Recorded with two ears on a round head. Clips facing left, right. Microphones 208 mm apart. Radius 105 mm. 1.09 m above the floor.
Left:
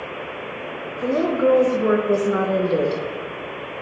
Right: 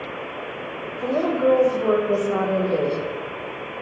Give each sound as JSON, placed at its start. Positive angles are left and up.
{"t": 1.0, "sound": "a woman speaking", "side_deg": 25, "distance_m": 1.2}